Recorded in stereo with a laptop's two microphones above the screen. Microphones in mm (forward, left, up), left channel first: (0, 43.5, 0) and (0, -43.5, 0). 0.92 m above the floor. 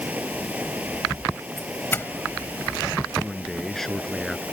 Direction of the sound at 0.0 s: 20° right (ahead or behind).